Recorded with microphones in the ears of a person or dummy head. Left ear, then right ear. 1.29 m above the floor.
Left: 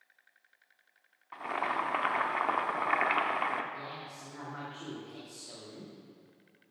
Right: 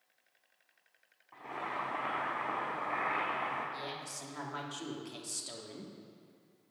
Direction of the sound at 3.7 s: 85° right.